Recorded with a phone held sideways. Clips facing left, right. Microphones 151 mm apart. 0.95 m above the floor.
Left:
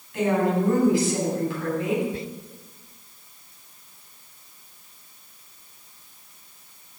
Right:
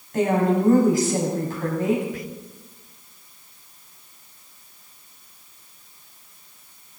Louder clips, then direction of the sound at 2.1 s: Left 1 dB; 25° left (ahead or behind).